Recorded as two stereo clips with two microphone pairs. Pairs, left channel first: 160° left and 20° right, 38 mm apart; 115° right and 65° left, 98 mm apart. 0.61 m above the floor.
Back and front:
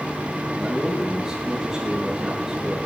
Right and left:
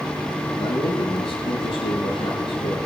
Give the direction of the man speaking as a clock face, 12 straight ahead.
3 o'clock.